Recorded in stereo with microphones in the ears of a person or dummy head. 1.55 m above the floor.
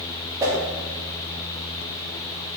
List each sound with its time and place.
0.4 s a whoosh: 15° right (ahead or behind), 1.3 m